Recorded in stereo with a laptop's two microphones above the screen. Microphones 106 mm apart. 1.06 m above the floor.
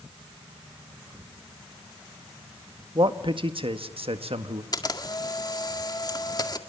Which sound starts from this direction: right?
A man speaking, at 3.0 s.